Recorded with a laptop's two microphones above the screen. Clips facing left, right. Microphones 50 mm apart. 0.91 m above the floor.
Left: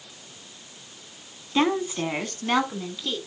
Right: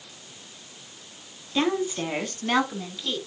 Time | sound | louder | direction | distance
1.6 | a woman speaking | left 2 dB | 15° left (ahead or behind) | 1.2 m